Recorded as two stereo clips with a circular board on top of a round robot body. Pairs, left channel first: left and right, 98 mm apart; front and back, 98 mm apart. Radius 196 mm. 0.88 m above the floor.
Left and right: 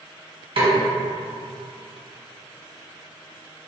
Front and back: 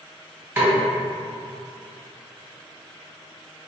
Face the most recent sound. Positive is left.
turn(degrees=-105)